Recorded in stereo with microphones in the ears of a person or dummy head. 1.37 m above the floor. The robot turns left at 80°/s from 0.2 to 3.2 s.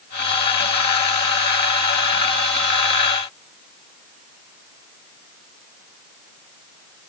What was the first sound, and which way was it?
Only background noise.